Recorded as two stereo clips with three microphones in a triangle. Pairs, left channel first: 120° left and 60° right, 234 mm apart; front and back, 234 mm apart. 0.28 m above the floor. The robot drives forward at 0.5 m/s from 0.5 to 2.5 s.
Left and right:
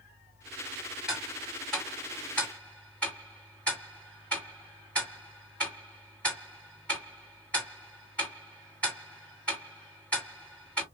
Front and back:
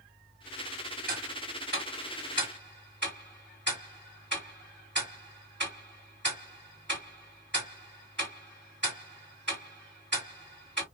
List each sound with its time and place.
1.1 s ticking: 145° right, 2 m; by 10.8 s 155° right, 2.5 m